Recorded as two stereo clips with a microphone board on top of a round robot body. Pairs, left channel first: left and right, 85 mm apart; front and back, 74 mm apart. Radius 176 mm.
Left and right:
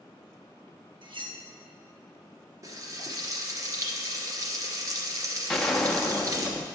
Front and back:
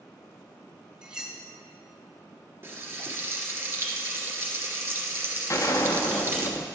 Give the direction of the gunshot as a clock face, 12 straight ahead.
12 o'clock.